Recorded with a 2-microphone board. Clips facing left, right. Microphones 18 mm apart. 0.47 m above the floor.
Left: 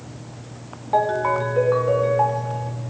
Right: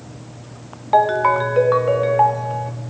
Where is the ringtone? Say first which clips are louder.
Right 5 dB; 35° right (ahead or behind), 1.0 m.